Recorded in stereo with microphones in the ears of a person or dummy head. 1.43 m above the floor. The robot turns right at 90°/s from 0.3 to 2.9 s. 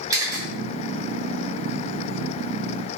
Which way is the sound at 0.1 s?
15° right (ahead or behind).